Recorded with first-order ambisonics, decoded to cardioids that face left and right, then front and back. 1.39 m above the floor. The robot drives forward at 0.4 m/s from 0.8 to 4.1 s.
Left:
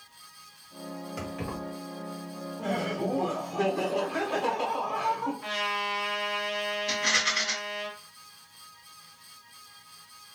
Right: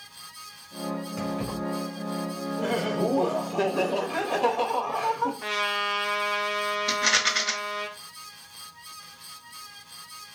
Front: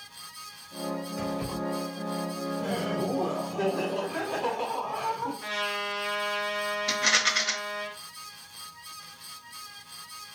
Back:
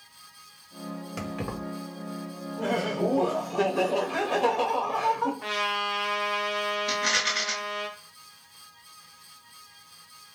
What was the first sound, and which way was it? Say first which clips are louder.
Keys jangling: right 2 dB, back 1 dB; 175° left.